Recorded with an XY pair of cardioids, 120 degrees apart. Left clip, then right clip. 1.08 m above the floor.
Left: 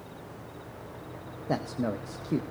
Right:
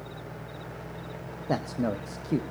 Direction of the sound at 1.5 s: 10° right.